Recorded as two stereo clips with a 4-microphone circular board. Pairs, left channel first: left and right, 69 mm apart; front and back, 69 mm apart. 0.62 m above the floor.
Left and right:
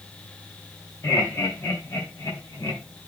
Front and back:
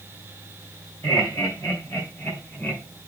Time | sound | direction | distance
1.0 | laughter | 40° left | 3 m